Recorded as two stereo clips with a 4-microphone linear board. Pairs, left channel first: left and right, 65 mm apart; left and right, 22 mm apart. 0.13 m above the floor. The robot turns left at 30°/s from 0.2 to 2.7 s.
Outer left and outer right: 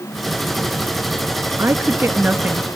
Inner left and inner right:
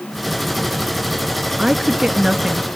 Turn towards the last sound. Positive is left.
turn(degrees=-160)